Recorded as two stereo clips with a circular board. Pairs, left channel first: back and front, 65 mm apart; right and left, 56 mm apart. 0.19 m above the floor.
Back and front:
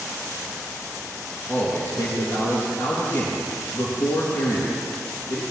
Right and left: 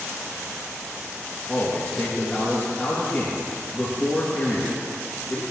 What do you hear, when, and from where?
1.5 s a man speaking: 160° right, 3 m